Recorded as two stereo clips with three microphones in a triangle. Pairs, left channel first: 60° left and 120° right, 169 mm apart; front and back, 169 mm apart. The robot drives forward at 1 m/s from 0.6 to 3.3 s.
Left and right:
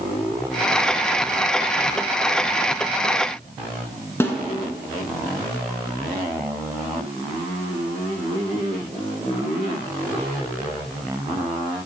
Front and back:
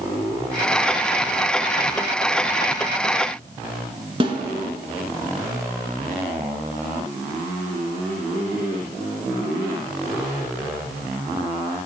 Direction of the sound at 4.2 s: 135° left.